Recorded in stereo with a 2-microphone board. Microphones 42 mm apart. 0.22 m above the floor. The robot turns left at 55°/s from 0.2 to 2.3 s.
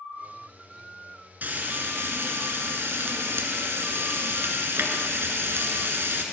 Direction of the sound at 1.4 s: 45° right.